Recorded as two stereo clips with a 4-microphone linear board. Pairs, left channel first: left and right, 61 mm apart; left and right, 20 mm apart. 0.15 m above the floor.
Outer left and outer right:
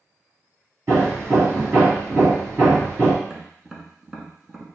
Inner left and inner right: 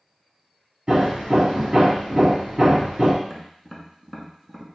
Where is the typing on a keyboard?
No typing on a keyboard in this recording.